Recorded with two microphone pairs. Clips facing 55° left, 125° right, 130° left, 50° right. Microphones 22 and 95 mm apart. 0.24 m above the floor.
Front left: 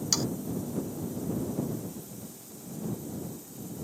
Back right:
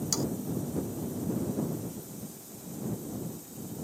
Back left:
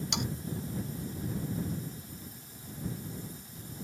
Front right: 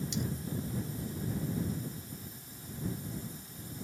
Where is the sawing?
115° left.